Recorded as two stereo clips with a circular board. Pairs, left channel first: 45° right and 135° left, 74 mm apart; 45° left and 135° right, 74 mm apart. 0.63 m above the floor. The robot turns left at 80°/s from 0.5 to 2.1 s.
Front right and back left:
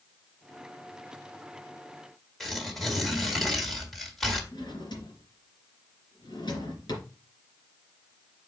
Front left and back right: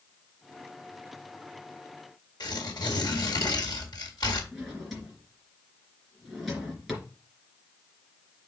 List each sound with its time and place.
2.4 s tearing paper: 40° left, 1.9 m
4.5 s a drawer: 45° right, 3 m